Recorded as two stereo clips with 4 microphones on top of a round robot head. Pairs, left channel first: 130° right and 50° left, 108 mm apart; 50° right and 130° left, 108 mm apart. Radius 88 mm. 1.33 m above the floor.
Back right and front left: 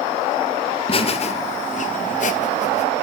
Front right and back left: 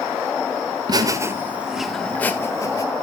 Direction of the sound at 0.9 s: 175° right.